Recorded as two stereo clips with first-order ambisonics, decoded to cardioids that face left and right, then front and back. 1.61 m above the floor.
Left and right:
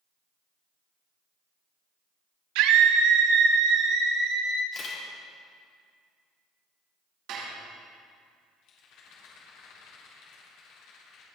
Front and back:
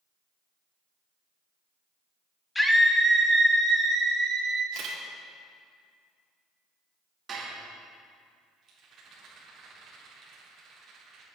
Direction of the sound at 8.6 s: 125° left.